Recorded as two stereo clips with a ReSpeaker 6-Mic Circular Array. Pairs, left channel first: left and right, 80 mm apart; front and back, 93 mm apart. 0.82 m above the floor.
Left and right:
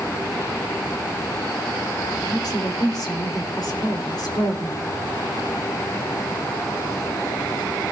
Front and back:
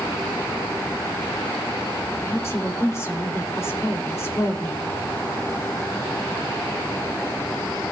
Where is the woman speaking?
60° left, 3.5 m.